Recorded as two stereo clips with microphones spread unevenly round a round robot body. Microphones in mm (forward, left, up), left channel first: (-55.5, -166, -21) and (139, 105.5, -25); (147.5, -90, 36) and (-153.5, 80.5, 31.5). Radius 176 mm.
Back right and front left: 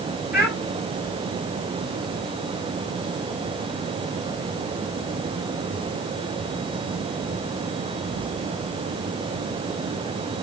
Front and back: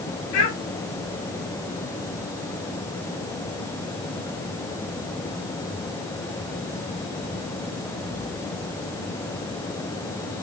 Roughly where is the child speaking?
Ahead right.